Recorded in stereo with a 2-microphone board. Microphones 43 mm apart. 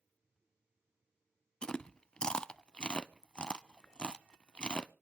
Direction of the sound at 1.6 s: 25° left (ahead or behind).